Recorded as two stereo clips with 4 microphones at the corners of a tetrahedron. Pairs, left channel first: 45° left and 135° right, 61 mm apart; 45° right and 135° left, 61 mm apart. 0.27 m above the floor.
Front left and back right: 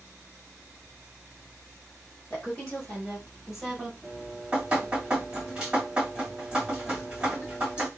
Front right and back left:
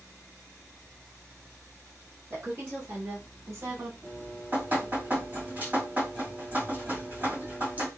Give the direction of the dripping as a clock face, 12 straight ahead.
7 o'clock.